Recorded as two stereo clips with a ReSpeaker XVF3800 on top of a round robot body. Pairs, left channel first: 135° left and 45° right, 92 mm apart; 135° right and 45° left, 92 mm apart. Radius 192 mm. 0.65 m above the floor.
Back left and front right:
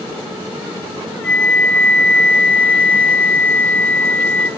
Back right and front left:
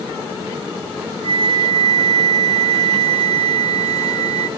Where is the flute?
55° left, 0.8 m.